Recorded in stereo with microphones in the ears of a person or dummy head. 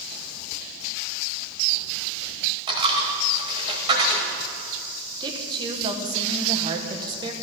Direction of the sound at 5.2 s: 20° right (ahead or behind).